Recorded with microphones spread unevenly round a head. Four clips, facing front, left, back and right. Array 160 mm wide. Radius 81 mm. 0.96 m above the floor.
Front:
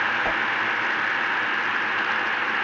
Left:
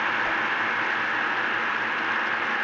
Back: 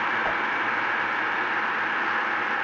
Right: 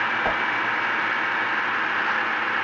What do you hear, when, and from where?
0.2 s a whoosh: 70° right, 0.8 m